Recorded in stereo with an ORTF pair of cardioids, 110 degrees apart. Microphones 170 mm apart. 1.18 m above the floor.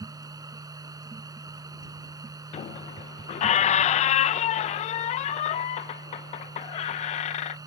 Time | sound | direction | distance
0.0 | a machine running | 20° right | ?
2.5 | a squeak | 45° left | ?